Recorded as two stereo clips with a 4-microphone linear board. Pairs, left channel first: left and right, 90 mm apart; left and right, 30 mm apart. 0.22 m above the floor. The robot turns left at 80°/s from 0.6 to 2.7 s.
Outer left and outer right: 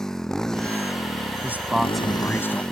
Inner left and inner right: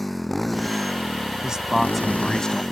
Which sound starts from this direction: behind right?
A man speaking, at 1.4 s.